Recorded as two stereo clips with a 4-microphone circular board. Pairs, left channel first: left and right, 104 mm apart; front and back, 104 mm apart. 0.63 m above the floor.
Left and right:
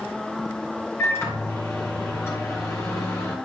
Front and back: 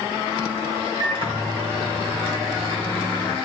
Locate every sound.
1.0 s a microwave: 155° left, 2.5 m